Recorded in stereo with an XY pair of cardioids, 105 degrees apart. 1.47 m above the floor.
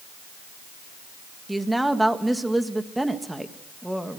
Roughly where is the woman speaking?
Ahead.